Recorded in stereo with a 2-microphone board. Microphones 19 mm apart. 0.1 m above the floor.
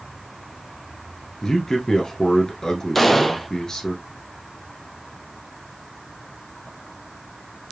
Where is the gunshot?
10° left (ahead or behind), 0.5 m.